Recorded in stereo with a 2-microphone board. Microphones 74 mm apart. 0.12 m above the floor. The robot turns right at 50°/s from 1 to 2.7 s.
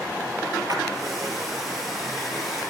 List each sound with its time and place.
0.7 s a splash: 65° right (ahead or behind), 2.5 m